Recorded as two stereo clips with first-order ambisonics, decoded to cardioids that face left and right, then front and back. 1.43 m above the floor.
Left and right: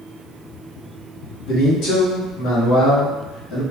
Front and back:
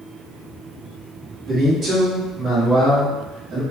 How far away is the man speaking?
About 1.5 m.